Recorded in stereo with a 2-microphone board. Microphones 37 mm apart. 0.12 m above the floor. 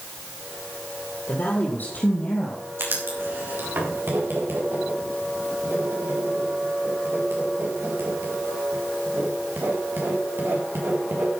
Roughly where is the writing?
Right.